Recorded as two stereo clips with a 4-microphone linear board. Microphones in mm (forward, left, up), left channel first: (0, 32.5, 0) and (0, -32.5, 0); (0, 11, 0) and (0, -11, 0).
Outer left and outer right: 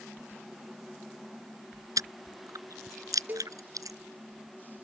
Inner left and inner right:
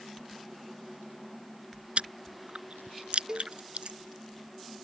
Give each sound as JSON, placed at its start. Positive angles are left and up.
{"t": 2.0, "sound": "chewing", "side_deg": -65}
{"t": 3.3, "sound": "a cowbell", "side_deg": -30}